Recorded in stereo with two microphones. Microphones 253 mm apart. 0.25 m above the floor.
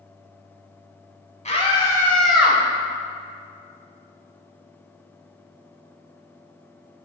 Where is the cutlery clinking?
I don't hear cutlery clinking.